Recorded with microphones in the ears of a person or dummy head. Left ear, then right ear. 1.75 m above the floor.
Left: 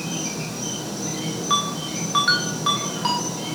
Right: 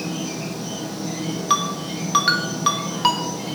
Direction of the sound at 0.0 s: 75° left (ahead or behind).